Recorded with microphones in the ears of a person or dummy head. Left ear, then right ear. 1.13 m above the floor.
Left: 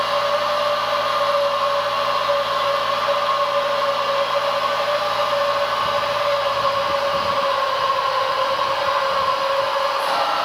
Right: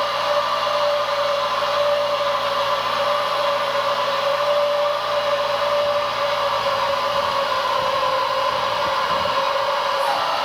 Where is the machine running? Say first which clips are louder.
Left 1 dB; 10° left (ahead or behind), 3.5 m.